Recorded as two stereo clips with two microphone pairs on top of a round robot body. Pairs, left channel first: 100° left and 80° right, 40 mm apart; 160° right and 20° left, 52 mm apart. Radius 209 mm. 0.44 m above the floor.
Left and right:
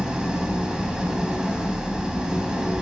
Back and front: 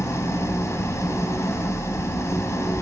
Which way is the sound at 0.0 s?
155° right.